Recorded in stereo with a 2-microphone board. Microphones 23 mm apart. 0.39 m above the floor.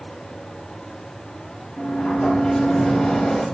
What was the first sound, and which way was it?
A sliding door, 55° left (ahead or behind).